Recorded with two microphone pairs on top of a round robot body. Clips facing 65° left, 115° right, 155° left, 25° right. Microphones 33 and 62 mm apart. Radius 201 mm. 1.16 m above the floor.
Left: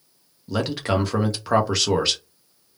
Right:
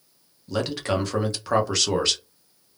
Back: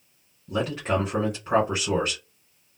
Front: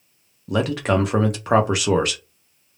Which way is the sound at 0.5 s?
15° right.